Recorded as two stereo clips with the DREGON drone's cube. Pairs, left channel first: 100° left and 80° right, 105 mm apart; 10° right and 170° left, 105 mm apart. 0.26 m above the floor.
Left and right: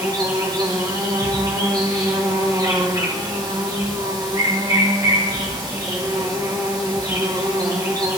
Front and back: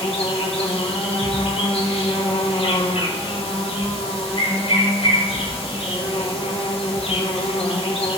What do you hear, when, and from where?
0.0 s an insect: 30° right, 4.5 m